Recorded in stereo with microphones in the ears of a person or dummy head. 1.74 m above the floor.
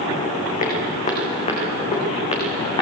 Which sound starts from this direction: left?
Footsteps, at 0.6 s.